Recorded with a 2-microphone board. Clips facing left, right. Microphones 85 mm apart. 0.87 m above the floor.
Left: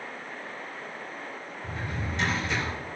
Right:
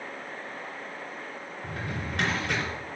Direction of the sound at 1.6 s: 60° right (ahead or behind).